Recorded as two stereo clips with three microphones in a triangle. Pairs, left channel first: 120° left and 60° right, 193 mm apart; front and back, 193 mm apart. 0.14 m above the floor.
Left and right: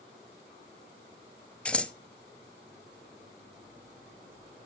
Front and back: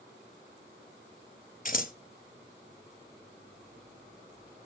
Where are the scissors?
35° left, 0.6 m.